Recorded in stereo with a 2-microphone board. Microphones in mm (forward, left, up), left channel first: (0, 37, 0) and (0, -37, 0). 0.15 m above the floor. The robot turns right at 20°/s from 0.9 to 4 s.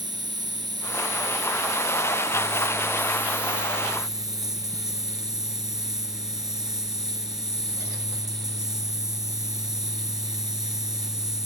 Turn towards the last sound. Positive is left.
turn(degrees=-5)